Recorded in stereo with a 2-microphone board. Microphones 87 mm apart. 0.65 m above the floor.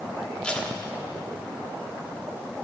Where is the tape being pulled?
10° left (ahead or behind), 1.0 m.